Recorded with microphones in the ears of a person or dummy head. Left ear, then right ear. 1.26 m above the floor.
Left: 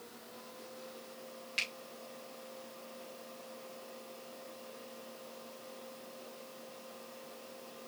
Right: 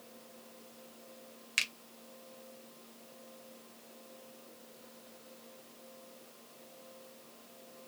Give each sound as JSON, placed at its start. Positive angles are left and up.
{"t": 1.6, "sound": "a finger snap", "side_deg": -50, "distance_m": 0.8}